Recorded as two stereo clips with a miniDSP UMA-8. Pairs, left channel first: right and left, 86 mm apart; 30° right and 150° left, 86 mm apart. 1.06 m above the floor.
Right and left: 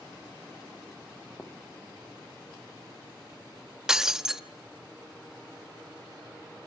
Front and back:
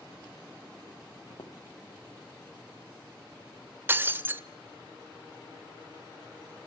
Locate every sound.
1.3 s footsteps: 25° right, 3.5 m
3.9 s breaking glass: 165° left, 0.8 m